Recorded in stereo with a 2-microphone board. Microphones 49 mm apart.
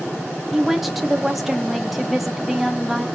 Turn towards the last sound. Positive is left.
turn(degrees=0)  # may be behind; listen again after turning